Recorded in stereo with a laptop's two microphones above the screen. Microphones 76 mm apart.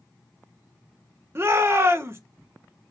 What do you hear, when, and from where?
1.4 s a shout: 35° right (ahead or behind), 1.1 m